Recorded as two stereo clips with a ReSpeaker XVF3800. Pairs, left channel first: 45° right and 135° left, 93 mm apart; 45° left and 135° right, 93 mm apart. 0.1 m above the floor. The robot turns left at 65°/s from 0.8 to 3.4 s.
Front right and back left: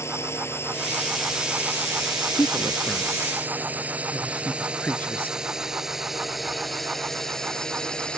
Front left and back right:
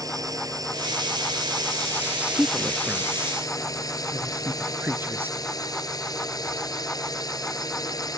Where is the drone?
100° right; by 8.2 s 30° left.